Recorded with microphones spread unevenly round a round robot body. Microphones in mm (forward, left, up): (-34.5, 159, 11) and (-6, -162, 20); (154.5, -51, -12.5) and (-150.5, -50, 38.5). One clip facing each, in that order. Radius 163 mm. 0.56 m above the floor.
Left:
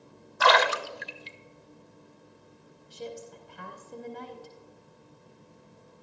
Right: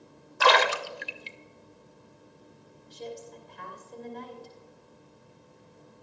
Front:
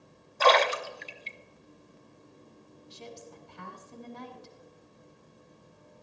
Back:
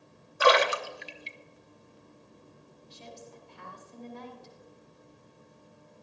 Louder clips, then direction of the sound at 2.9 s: Even, front 2 dB; 20° left.